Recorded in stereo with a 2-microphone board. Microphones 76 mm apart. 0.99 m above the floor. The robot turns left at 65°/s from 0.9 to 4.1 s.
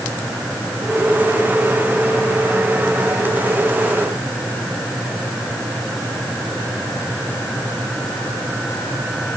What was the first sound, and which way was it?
Only background noise.